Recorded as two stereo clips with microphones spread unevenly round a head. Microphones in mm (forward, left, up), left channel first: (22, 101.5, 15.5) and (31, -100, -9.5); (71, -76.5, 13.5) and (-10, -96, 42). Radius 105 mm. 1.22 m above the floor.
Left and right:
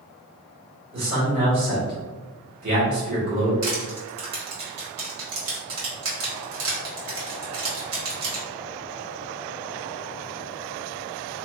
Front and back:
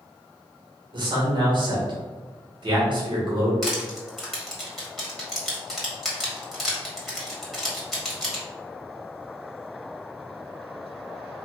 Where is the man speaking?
135° right, 1.7 m.